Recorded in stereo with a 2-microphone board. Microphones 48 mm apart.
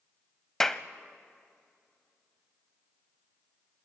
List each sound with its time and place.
0.6 s a clap: 10° left (ahead or behind), 0.7 m